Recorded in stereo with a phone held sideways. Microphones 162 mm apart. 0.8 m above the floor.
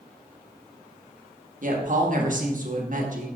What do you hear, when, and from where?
1.6 s a woman speaking: 55° right (ahead or behind), 1.1 m